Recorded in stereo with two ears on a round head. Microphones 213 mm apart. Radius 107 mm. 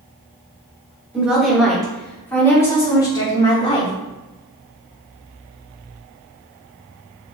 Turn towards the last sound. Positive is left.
turn(degrees=25)  # may be behind; listen again after turning